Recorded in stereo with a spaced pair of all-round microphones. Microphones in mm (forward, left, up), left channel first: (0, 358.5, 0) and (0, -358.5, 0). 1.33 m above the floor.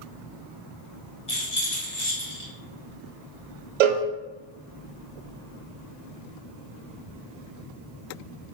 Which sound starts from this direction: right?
A cowbell, at 3.8 s.